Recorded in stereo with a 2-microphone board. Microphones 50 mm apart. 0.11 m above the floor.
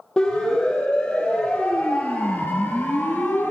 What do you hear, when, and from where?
0.2 s a siren: 15° left (ahead or behind), 3.5 m; by 3.5 s 45° left (ahead or behind), 2 m